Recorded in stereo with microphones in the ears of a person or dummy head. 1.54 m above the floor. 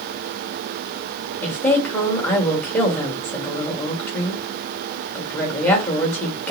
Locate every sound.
1.4 s a woman speaking: 10° left (ahead or behind), 1.5 m